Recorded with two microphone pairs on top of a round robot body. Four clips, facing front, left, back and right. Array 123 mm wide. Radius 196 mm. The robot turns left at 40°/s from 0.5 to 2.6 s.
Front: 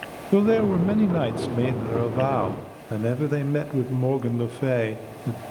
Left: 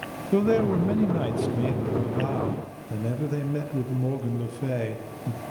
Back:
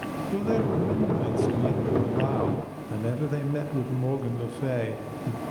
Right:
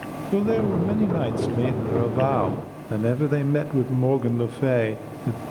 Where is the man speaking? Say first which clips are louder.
Even, front 7 dB; 20° left, 1.0 m; by 5.4 s 65° right, 1.0 m.